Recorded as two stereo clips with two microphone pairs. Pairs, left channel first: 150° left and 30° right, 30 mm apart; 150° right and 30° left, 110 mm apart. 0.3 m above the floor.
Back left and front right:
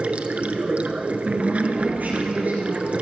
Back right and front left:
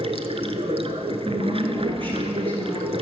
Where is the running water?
5° left, 0.8 m.